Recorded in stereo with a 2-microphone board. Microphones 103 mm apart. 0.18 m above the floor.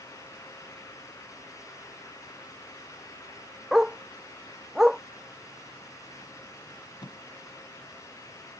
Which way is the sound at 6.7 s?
50° left (ahead or behind).